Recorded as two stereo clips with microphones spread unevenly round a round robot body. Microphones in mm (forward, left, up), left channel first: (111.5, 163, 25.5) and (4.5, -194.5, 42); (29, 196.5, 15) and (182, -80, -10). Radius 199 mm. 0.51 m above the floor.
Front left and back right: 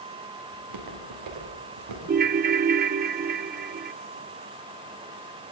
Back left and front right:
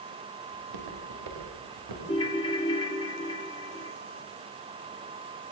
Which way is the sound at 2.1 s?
165° right.